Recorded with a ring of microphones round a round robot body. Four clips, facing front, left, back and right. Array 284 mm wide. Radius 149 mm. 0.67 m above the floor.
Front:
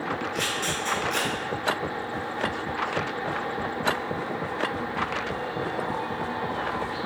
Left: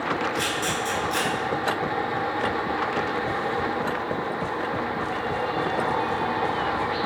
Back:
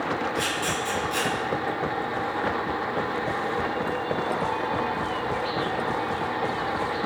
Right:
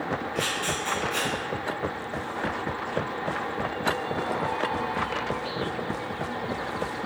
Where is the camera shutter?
85° left, 2.5 m.